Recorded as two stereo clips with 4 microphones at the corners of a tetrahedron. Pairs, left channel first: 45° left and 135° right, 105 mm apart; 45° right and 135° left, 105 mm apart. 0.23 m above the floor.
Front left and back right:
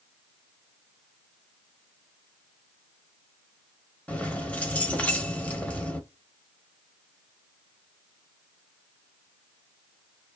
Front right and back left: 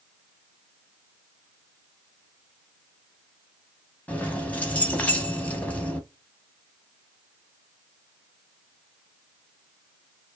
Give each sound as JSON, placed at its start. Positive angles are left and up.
{"t": 4.1, "sound": "keys jangling", "azimuth_deg": -5, "distance_m": 0.6}